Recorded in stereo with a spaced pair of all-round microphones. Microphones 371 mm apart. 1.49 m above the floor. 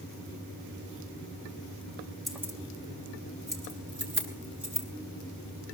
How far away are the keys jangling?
About 1.5 m.